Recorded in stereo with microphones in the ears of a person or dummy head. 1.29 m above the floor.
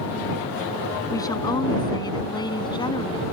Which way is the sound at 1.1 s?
15° left (ahead or behind).